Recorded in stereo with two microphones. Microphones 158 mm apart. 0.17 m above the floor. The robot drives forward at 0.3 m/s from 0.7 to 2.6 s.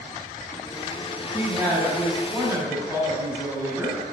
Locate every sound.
1.3 s a woman speaking: 25° right (ahead or behind), 1.2 m; by 4.0 s 20° right (ahead or behind), 1.3 m